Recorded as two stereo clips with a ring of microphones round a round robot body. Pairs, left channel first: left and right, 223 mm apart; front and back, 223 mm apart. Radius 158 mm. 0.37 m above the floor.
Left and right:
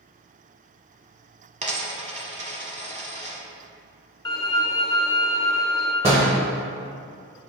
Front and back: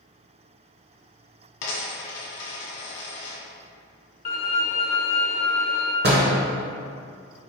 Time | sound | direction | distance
1.6 | a dropped coin | 30° right | 1.3 m
4.2 | a violin | 25° left | 0.9 m
6.0 | a door slam | 150° right | 0.9 m